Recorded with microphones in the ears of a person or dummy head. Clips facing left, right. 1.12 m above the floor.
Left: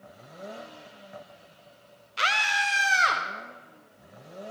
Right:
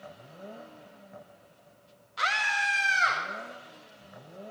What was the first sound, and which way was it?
A scream, 40° left (ahead or behind).